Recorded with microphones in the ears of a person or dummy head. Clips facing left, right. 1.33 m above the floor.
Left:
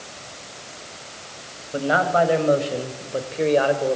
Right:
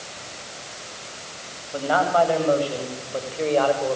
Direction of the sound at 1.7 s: 25° left (ahead or behind).